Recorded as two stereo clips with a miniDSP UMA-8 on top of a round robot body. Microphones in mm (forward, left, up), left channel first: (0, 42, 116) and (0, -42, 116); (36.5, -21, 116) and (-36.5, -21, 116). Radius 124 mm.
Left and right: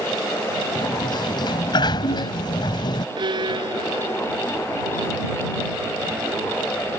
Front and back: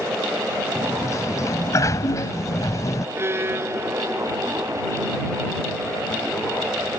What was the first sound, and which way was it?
A sliding door, 50° left.